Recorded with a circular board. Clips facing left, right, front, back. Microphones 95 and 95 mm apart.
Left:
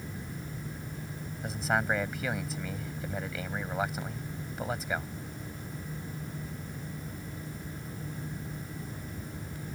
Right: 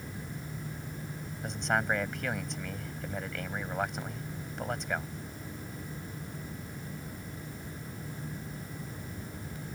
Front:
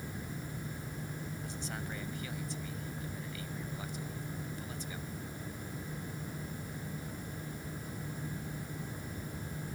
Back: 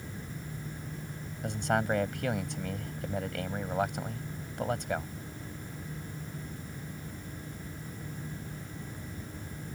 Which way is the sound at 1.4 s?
175° left.